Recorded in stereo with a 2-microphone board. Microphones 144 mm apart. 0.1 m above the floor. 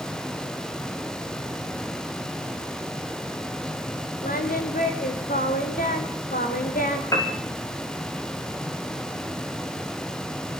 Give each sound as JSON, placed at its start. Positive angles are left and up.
{"t": 4.2, "sound": "singing", "side_deg": 80, "distance_m": 5.0}
{"t": 7.1, "sound": "a piano", "side_deg": 20, "distance_m": 8.0}